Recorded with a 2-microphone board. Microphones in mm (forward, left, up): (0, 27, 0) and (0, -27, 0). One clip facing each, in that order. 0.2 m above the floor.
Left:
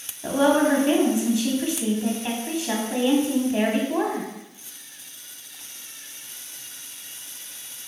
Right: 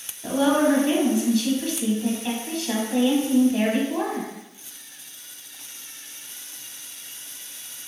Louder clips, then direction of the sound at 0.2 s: Left 1 dB; 20° left (ahead or behind).